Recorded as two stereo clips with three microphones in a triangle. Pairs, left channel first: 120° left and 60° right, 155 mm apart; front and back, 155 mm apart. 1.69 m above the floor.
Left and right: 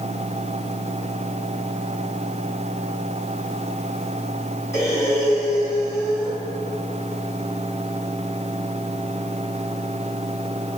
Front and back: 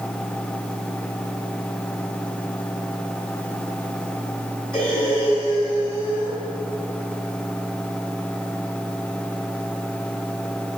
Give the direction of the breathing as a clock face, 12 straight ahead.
10 o'clock.